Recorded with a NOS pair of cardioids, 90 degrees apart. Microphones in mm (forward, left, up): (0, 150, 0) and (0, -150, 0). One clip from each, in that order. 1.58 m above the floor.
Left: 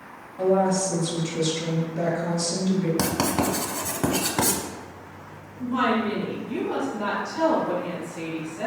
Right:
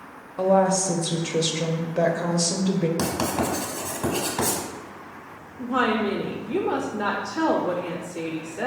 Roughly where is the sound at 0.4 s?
Ahead right.